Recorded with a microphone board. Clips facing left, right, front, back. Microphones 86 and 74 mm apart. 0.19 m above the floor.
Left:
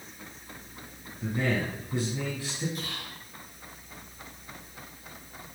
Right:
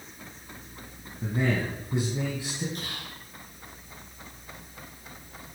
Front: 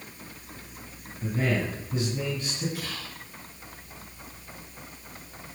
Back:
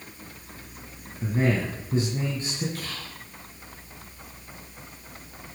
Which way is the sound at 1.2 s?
150° right.